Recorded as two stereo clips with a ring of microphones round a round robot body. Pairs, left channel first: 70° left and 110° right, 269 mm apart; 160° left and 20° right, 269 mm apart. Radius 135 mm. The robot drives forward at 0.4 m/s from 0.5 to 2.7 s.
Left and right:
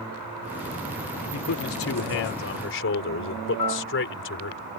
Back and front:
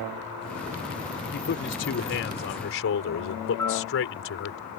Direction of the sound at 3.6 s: 75° left.